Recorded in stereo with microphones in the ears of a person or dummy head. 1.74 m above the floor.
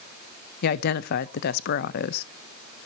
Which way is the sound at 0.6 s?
55° left (ahead or behind).